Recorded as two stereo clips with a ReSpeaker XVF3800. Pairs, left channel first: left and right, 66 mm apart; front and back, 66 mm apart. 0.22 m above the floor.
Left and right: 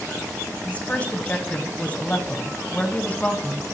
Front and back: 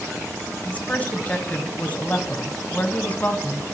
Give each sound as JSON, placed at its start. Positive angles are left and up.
{"t": 0.7, "sound": "a woman speaking", "azimuth_deg": 40, "distance_m": 1.1}